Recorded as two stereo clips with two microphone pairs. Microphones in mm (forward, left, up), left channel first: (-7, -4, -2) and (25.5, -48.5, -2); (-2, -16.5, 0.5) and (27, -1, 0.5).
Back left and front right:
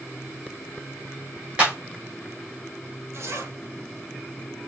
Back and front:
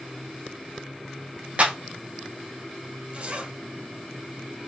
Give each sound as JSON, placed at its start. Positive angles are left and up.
{"t": 1.6, "sound": "a clap", "azimuth_deg": 10, "distance_m": 2.0}
{"t": 3.1, "sound": "a zipper", "azimuth_deg": -15, "distance_m": 1.5}